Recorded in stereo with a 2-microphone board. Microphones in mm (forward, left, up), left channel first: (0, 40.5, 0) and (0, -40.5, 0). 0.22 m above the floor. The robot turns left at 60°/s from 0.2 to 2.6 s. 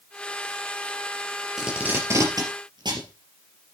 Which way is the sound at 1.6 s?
5° right (ahead or behind).